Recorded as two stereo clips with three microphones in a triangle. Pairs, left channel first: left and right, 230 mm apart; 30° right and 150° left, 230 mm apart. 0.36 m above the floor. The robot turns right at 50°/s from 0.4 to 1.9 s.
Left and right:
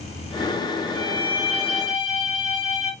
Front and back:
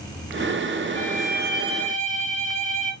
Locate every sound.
0.9 s a violin: 45° left, 2 m; by 2.9 s 95° left, 2 m